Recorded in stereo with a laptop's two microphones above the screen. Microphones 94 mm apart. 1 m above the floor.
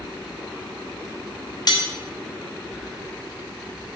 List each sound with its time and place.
1.7 s cutlery clinking: 45° left (ahead or behind), 1.1 m